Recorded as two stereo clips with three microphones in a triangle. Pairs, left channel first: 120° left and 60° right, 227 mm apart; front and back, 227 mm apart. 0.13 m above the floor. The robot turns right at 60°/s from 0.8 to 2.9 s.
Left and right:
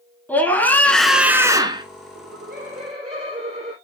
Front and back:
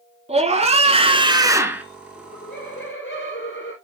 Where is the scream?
165° right, 1.4 m; by 1.9 s 100° right, 1.4 m.